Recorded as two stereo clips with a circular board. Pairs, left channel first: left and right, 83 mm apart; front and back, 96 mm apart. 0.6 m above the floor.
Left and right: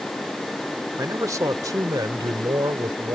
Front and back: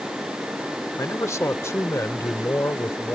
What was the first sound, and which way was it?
A man speaking, 50° right.